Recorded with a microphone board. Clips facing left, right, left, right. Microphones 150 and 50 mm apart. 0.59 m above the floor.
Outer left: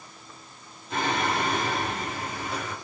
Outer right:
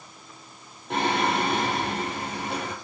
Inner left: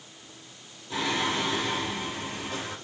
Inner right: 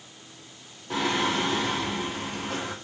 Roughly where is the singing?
Right.